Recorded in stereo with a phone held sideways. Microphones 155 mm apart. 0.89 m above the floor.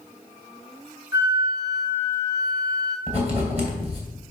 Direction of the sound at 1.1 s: 25° right (ahead or behind).